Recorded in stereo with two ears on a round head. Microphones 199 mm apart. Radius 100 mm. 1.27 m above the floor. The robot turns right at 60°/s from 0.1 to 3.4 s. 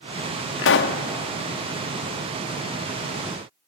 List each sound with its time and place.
0.6 s a pop: 65° left (ahead or behind), 1.1 m; by 1.0 s 40° left (ahead or behind), 1.1 m